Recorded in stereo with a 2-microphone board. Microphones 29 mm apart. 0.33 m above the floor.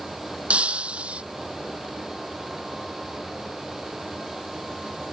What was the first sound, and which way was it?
Breaking glass, 45° right (ahead or behind).